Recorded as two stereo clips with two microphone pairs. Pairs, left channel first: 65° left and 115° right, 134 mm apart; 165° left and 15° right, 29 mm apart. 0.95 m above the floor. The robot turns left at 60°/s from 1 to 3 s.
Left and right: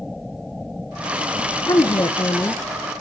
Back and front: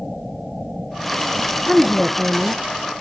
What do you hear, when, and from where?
1.7 s a woman speaking: 70° left, 0.7 m; by 2.6 s 15° left, 0.7 m